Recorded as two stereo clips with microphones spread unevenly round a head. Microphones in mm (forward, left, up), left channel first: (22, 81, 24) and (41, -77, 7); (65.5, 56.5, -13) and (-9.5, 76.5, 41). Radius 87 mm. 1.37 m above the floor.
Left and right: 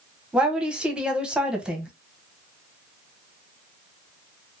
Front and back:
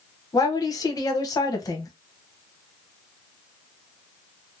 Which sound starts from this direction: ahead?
A woman speaking, at 0.3 s.